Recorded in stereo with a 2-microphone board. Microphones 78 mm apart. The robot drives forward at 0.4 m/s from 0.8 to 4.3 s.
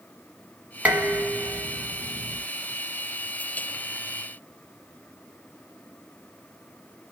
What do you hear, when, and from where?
0.8 s dishes clattering: 15° right (ahead or behind), 1.1 m; by 2.4 s 10° right (ahead or behind), 1.6 m